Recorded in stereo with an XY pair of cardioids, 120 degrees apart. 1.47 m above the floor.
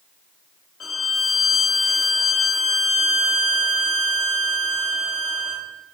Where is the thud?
No thud in this recording.